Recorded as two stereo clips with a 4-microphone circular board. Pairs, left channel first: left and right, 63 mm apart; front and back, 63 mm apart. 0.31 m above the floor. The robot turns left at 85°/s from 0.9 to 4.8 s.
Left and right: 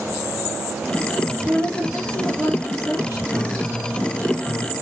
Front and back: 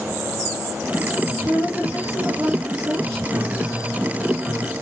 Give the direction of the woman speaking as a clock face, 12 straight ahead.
4 o'clock.